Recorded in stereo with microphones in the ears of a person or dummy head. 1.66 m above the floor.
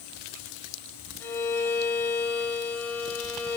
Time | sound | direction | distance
1.2 | a violin | 10° left (ahead or behind) | 2.5 m